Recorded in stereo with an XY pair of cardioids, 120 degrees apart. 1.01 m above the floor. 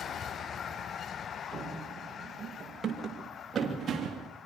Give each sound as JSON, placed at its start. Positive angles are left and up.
{"t": 1.5, "sound": "running footsteps", "azimuth_deg": -15, "distance_m": 6.5}